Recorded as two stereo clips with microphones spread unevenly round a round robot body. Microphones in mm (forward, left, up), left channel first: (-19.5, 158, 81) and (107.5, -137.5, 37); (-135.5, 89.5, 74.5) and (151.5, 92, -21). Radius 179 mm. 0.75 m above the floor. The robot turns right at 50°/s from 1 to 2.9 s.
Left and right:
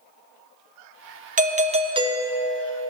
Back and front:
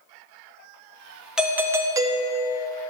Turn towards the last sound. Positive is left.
turn(degrees=25)